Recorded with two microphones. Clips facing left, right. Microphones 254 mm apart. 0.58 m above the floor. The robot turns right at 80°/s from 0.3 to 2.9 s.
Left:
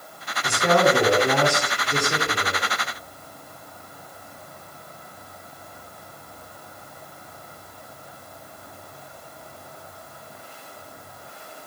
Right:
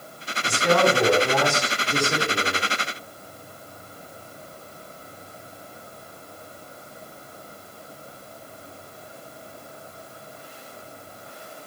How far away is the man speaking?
About 1.7 m.